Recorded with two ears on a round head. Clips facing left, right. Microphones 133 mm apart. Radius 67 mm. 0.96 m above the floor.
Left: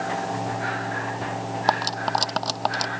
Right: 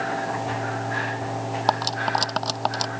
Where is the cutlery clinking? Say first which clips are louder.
Even; centre (ahead or behind).